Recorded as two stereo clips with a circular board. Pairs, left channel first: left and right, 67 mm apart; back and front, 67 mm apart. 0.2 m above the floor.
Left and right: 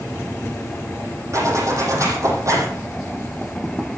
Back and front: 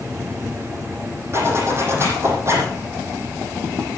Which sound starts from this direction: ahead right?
A zipper, at 1.3 s.